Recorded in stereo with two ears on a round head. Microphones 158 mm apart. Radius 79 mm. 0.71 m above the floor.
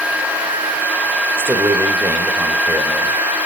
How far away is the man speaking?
About 2.5 m.